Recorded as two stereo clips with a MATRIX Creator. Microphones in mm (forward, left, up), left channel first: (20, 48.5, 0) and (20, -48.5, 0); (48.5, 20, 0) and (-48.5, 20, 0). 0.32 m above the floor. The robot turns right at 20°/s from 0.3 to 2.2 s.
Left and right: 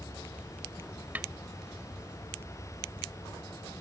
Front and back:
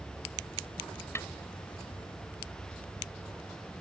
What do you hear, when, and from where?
1.1 s a snare drum: 30° right